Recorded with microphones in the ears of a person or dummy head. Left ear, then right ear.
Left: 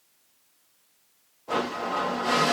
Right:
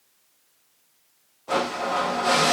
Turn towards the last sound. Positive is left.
turn(degrees=-15)  # may be behind; listen again after turning